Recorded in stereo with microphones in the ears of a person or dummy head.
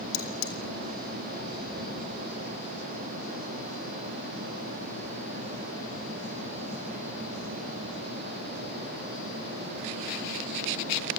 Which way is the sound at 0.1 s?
70° left (ahead or behind).